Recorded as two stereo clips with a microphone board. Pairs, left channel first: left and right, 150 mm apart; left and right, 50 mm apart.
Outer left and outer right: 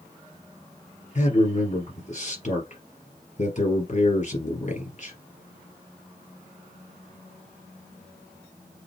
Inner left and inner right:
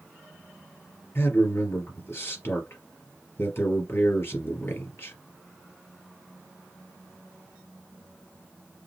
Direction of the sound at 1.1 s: 50° left (ahead or behind).